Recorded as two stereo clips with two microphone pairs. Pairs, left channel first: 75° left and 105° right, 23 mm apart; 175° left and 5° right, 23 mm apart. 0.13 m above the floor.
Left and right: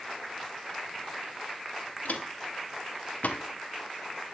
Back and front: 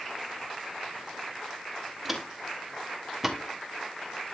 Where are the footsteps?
80° left, 4 m; by 3.4 s 75° left, 3 m.